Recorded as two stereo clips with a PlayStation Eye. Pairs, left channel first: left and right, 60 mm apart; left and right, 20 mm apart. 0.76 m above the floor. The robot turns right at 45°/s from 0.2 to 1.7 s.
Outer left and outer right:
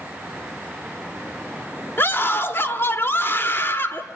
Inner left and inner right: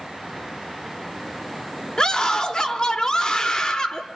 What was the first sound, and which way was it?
A scream, 40° left (ahead or behind).